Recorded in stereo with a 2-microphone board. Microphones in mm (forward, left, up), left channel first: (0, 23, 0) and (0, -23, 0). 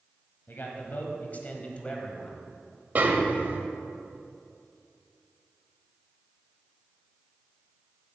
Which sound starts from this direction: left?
A man speaking, at 0.5 s.